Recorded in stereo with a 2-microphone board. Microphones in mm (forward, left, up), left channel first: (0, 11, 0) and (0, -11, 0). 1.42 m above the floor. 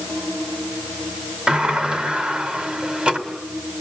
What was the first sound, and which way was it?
A sliding door, 45° right (ahead or behind).